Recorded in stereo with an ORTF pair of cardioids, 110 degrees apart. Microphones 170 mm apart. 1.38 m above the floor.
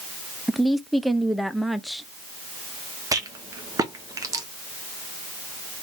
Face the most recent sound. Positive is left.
turn(degrees=-20)